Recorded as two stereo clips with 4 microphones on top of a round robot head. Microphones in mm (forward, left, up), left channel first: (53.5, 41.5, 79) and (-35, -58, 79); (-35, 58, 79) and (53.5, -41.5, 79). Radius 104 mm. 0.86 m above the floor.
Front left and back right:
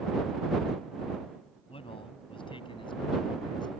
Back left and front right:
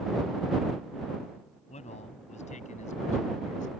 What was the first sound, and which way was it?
A man speaking, 95° left.